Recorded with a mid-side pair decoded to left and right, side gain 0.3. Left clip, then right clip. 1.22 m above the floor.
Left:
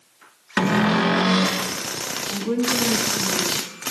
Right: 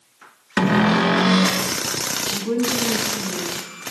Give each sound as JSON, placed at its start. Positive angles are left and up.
{"t": 0.6, "sound": "a cupboard door", "azimuth_deg": -30, "distance_m": 1.6}
{"t": 2.3, "sound": "a woman speaking", "azimuth_deg": 5, "distance_m": 8.5}